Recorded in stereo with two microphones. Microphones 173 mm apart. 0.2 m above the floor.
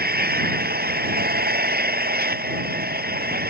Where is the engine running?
65° right (ahead or behind).